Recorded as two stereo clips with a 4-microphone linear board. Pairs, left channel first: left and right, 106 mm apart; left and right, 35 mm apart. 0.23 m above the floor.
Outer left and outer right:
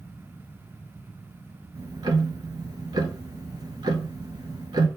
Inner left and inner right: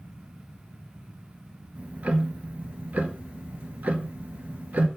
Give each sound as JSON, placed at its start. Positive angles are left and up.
{"t": 1.8, "sound": "ticking", "side_deg": -45, "distance_m": 0.5}